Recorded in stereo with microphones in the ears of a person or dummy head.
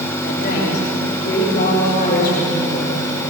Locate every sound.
0.2 s a woman speaking: 60° left (ahead or behind), 8 m; by 2.9 s 50° left (ahead or behind), 9 m